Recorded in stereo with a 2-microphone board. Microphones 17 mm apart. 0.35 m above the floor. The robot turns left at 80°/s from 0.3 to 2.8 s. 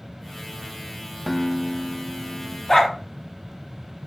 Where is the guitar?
Straight behind, 0.7 m; by 2.6 s 75° left, 0.7 m.